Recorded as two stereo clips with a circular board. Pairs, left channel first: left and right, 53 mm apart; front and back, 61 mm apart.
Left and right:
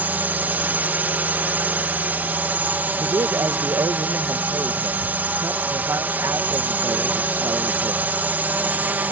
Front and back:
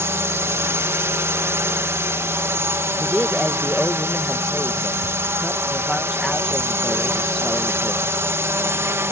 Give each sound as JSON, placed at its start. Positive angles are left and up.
{"t": 0.0, "sound": "a drone", "azimuth_deg": -140}
{"t": 3.0, "sound": "a man speaking", "azimuth_deg": -90}